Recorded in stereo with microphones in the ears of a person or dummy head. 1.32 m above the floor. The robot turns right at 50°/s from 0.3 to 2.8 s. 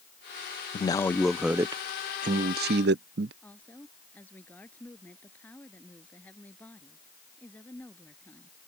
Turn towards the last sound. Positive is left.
turn(degrees=10)  # may be behind; listen again after turning